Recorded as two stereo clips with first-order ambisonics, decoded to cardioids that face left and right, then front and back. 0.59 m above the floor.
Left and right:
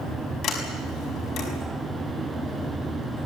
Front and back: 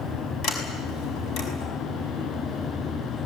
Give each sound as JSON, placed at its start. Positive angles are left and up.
{"t": 0.4, "sound": "a sliding door", "azimuth_deg": 40, "distance_m": 5.5}